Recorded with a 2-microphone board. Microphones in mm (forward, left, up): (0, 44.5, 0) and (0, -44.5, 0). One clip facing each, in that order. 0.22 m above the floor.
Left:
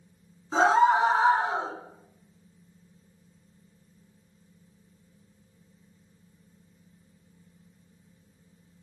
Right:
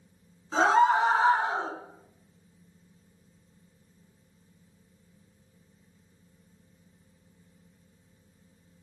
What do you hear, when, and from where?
0.5 s a scream: 10° left (ahead or behind), 3 m; by 1.7 s 5° left (ahead or behind), 2 m